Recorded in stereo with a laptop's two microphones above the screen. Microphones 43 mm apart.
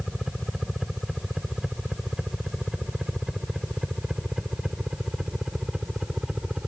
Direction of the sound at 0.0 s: 10° right (ahead or behind).